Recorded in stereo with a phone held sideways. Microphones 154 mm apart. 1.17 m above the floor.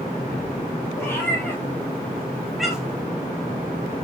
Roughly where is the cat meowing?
Centre.